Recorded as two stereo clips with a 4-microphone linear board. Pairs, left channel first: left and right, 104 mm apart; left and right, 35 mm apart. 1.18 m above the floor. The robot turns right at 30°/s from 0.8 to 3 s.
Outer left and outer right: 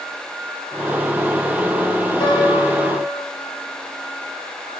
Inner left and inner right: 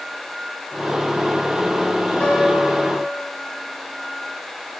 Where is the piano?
60° left (ahead or behind), 2 m; by 3.2 s 40° left (ahead or behind), 2 m.